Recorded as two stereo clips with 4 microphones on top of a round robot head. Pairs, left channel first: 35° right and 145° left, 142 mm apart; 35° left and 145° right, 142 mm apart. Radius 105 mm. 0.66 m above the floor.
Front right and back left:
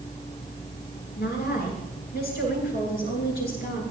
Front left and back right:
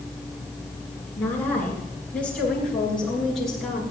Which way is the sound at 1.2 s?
40° right.